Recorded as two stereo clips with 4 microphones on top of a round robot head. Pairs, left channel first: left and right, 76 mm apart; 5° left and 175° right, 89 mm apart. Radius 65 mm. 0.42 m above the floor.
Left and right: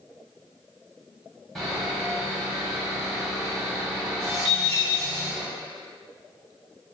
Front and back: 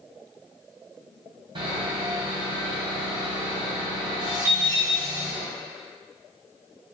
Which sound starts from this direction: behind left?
An alarm clock, at 4.5 s.